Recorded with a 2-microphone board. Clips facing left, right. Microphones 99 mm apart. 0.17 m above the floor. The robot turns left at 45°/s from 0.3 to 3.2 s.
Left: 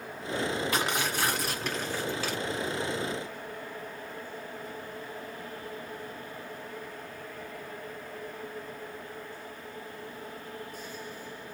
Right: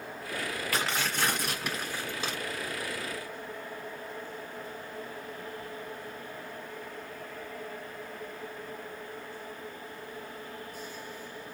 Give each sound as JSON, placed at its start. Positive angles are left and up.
{"t": 0.7, "sound": "tearing paper", "azimuth_deg": 35, "distance_m": 2.0}